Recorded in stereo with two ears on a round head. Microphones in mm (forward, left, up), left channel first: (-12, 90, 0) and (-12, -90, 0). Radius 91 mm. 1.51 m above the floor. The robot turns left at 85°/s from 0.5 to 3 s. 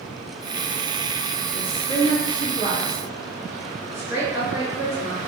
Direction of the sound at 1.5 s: 70° left (ahead or behind).